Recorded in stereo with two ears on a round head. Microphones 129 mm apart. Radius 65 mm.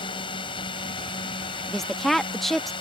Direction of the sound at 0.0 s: 35° left (ahead or behind).